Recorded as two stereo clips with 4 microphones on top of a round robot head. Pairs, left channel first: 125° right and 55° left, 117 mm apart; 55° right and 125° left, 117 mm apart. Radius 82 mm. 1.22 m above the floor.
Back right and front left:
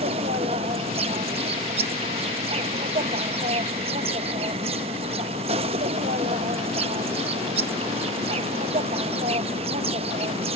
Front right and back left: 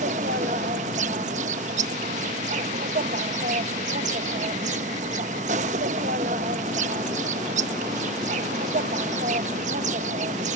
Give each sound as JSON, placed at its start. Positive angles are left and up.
{"t": 0.0, "sound": "an insect", "azimuth_deg": 95}